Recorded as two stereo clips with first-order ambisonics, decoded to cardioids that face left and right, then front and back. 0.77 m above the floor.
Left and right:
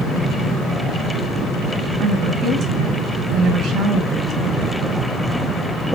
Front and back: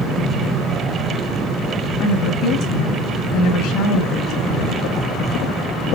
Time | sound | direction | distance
2.0 | a woman speaking | 35° right | 6.5 m